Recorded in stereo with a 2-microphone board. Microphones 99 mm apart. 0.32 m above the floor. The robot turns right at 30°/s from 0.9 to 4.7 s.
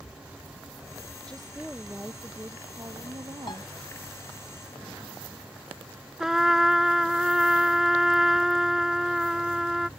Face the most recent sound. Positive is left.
turn(degrees=-5)  # may be behind; listen again after turning